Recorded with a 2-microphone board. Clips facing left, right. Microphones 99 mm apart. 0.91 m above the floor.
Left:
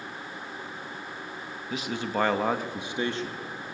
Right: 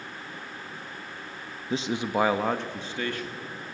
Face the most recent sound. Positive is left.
turn(degrees=30)  # may be behind; listen again after turning